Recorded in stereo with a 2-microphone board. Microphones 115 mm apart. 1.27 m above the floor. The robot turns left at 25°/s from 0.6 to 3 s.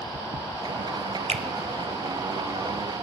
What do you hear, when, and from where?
1.3 s a finger snap: 65° right (ahead or behind), 0.7 m